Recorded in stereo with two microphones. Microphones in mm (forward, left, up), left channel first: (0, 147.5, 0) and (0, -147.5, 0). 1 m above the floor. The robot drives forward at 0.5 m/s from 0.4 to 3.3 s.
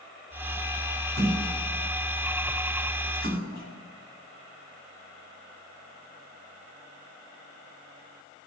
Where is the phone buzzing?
I don't hear a phone buzzing.